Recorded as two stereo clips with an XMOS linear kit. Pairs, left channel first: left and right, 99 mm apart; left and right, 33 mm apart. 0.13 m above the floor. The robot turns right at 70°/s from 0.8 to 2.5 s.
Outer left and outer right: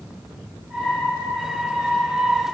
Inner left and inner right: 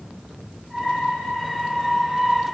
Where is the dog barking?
No dog barking in this recording.